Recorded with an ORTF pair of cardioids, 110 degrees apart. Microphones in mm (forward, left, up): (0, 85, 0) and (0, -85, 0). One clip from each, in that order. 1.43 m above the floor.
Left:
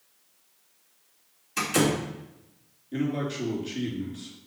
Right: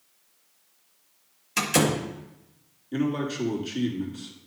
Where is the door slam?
45° right, 2 m.